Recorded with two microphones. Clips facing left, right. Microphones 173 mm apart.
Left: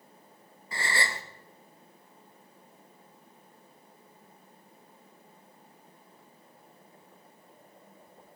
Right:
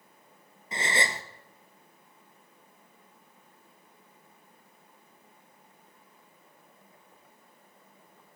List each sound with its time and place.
0.7 s a gasp: 20° right (ahead or behind), 1.0 m